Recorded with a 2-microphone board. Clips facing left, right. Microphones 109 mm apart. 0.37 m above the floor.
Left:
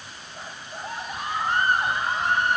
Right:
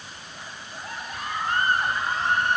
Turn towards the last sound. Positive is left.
turn(degrees=15)  # may be behind; listen again after turning